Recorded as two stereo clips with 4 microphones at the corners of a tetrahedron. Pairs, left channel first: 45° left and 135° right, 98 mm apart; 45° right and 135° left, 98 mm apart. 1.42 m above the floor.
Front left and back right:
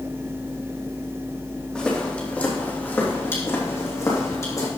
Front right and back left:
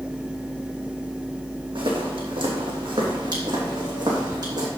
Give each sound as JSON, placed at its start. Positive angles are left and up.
{"t": 1.8, "sound": "footsteps", "azimuth_deg": 125, "distance_m": 3.0}